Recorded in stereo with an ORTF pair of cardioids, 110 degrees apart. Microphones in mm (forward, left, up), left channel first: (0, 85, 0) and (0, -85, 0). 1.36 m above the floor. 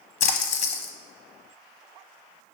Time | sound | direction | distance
0.2 | a splash | 45° left | 1.0 m